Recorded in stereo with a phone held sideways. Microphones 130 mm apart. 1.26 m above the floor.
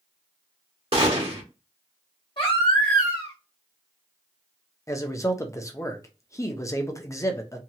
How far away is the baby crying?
About 1.3 m.